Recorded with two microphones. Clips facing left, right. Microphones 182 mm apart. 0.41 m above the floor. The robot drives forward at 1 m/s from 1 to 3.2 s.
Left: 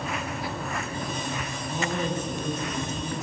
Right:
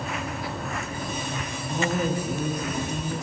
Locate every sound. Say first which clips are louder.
1.7 s a woman speaking: right 3 dB; 15° right (ahead or behind), 7 m